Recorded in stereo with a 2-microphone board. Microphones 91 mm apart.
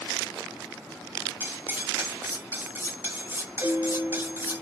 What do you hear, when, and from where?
1.4 s cutlery clinking: 25° right (ahead or behind), 0.6 m
3.6 s a piano: 15° right (ahead or behind), 1.7 m